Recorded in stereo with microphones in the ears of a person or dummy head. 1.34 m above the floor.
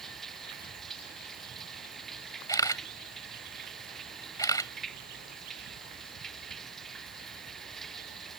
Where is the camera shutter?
15° left (ahead or behind).